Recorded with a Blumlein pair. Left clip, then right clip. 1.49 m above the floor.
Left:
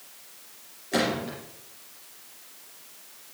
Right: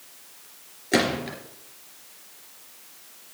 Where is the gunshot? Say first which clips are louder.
Right 3 dB; 65° right, 3 m.